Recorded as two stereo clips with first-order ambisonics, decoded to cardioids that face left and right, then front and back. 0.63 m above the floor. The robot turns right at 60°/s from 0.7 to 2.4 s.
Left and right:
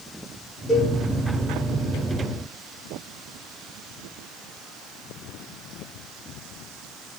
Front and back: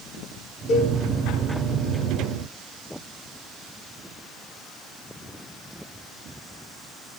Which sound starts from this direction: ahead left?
A cowbell, at 0.7 s.